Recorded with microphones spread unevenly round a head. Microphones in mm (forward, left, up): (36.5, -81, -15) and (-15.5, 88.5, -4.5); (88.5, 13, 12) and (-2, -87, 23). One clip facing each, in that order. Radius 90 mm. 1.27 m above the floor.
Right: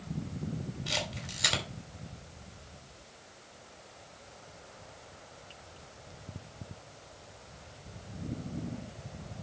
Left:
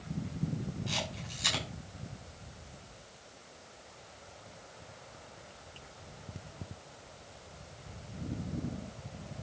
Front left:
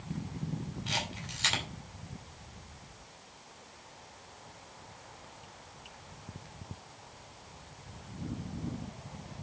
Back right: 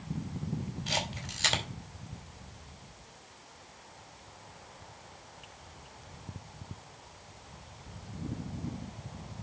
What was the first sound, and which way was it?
A camera shutter, 80° right.